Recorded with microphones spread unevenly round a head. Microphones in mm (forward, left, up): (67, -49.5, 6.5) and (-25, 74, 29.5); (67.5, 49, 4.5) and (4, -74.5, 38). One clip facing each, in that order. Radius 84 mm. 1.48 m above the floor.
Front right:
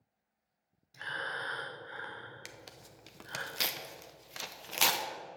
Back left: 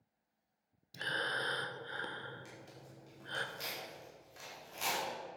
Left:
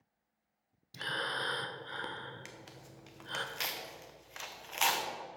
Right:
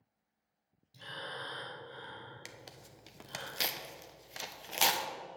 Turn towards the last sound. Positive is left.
turn(degrees=-65)